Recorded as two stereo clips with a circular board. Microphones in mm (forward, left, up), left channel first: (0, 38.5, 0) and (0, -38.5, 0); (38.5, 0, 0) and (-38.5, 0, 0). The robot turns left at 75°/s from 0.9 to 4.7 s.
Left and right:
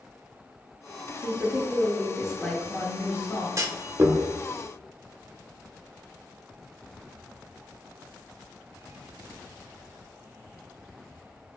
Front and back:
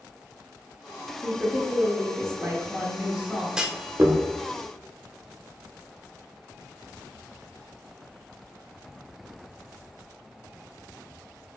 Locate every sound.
1.2 s a woman speaking: 95° right, 0.8 m; by 3.5 s 95° left, 0.8 m
3.6 s a clunk: 100° right, 0.6 m; by 4.2 s 150° right, 0.6 m